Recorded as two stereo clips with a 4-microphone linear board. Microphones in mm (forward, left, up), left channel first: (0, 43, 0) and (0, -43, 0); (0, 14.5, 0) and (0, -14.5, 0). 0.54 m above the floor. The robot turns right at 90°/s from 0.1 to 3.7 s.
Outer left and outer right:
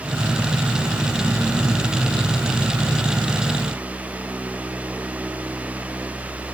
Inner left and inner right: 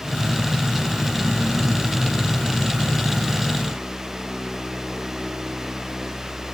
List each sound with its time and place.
Only background noise.